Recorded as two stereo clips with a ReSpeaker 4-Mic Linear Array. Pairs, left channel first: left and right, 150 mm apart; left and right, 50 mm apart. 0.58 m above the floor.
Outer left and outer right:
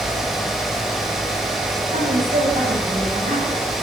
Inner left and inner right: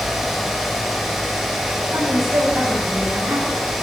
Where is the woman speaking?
55° right (ahead or behind), 4.5 m; by 3.6 s 40° right (ahead or behind), 4 m.